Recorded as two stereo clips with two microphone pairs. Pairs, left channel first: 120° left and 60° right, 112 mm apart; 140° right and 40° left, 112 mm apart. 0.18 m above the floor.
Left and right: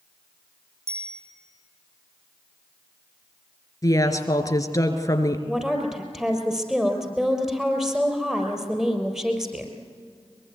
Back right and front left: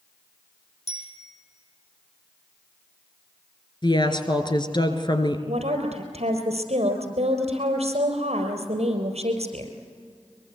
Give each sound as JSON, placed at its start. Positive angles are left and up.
{"t": 0.9, "sound": "a bicycle bell", "azimuth_deg": -125, "distance_m": 5.5}
{"t": 3.8, "sound": "a woman speaking", "azimuth_deg": 175, "distance_m": 2.0}
{"t": 5.5, "sound": "a woman speaking", "azimuth_deg": 25, "distance_m": 4.0}